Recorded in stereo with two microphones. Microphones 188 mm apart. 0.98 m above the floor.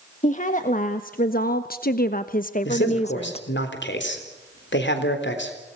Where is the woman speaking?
40° left (ahead or behind), 1.5 m; by 3.5 s 30° left (ahead or behind), 1.2 m.